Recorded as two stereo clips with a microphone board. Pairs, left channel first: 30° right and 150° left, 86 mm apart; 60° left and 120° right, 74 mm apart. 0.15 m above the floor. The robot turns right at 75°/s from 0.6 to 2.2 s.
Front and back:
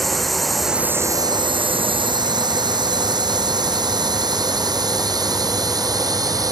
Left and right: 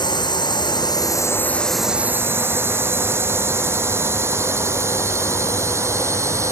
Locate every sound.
0.0 s a drone: 60° left; by 6.5 s 165° right